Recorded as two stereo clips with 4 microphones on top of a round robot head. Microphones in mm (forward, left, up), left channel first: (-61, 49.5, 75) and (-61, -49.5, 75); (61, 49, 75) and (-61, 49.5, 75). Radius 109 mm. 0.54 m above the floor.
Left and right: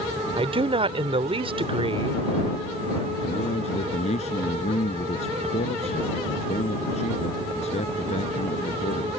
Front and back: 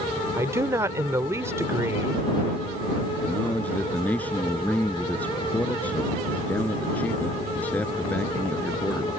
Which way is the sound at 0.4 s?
110° right.